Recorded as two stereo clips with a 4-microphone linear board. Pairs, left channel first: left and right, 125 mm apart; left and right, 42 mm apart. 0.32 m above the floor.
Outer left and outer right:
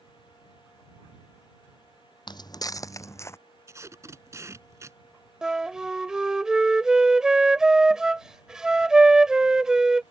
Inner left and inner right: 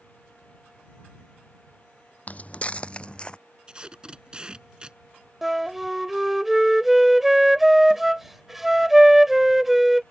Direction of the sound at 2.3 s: 40° left (ahead or behind).